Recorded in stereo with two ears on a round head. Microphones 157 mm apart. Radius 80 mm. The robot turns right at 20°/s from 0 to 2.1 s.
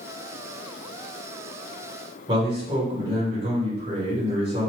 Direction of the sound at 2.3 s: 30° right (ahead or behind).